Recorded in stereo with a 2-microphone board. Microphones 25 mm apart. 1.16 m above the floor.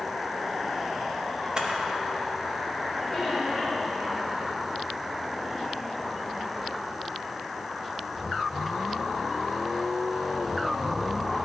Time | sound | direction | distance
1.6 | a camera shutter | 35° right (ahead or behind) | 0.9 m
3.1 | a squeak | 10° left (ahead or behind) | 2 m